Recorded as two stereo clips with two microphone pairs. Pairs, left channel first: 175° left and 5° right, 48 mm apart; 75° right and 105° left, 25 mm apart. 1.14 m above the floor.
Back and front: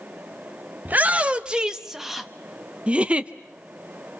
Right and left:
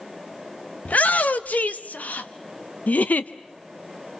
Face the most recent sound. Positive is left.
turn(degrees=-70)